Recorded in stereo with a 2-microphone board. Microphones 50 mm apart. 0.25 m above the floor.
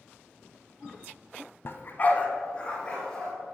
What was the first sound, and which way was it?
A dog barking, 50° left (ahead or behind).